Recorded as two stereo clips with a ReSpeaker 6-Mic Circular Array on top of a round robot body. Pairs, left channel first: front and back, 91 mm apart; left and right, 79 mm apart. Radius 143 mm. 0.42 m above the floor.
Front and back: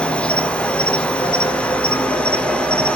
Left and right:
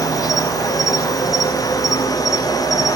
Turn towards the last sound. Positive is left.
turn(degrees=75)